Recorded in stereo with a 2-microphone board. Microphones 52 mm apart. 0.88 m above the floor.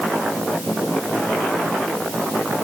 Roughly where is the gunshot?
No gunshot in this recording.